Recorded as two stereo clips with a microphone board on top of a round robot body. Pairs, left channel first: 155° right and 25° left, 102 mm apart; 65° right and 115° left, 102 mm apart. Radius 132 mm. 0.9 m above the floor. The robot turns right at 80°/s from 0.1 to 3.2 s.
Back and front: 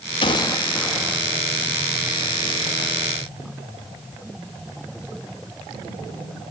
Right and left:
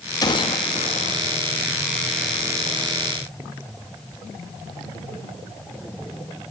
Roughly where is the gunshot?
Behind right.